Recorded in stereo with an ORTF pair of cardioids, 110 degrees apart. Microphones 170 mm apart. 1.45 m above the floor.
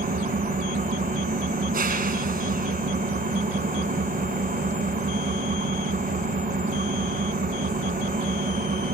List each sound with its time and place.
0.0 s an engine running: 70° right, 1.4 m